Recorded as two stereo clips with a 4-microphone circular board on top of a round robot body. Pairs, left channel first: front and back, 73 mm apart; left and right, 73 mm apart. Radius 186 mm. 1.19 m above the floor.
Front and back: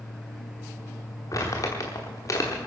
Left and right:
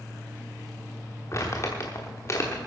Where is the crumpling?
40° left, 0.9 m.